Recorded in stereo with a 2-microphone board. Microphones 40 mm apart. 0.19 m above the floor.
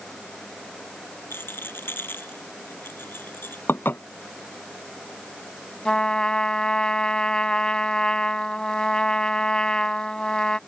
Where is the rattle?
65° left (ahead or behind).